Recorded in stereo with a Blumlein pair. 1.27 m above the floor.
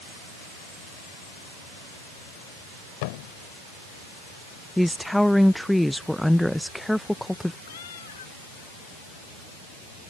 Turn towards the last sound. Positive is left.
turn(degrees=65)